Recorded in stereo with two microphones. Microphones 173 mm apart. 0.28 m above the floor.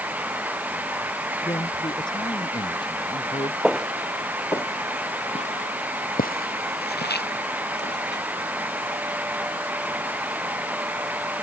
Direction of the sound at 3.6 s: 5° right (ahead or behind).